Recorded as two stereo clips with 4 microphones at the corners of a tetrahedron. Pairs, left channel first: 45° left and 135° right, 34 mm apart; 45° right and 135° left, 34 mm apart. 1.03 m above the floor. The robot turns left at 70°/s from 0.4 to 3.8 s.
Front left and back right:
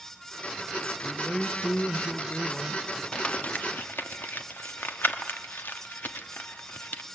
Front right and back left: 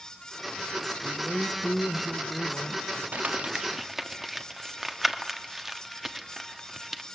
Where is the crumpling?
100° left, 1.0 m; by 7.0 s 50° left, 1.0 m.